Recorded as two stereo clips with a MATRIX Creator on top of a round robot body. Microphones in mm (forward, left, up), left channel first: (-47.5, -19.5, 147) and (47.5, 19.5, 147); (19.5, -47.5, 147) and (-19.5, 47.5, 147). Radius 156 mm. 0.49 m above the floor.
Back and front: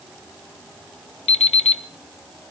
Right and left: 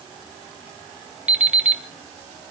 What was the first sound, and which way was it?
An alarm clock, 170° right.